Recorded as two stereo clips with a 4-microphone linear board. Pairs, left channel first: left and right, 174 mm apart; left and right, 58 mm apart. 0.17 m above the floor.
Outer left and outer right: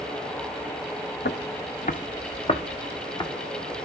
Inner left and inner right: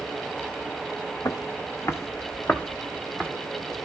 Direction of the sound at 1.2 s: 80° left.